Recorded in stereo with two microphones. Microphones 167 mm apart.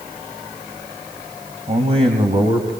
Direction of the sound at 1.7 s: 35° right (ahead or behind).